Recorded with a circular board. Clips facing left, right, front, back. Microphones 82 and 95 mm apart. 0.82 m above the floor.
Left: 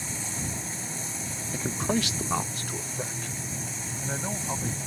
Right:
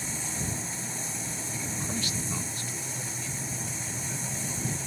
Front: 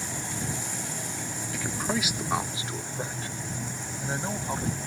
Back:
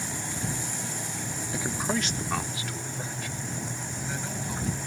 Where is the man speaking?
120° left; by 4.8 s 50° left.